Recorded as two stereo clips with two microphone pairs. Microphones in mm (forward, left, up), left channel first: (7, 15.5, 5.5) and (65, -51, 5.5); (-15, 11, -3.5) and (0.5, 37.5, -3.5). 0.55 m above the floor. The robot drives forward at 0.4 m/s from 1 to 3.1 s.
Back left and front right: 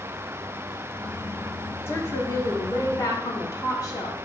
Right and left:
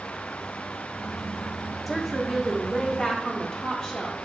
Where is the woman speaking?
125° left, 0.7 m; by 4.2 s 160° left, 0.9 m.